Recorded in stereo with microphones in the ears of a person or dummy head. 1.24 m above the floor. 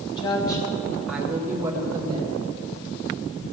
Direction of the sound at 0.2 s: 25° left (ahead or behind).